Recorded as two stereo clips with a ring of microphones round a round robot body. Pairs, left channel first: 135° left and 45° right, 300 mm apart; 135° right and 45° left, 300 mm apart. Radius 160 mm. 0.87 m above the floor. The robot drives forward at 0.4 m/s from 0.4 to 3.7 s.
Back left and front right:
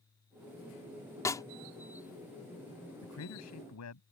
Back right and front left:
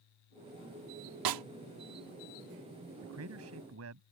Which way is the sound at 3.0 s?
90° left.